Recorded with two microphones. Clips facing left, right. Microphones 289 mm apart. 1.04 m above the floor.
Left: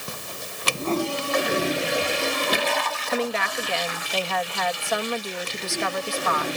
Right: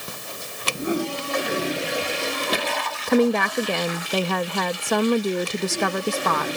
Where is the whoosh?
15° right (ahead or behind).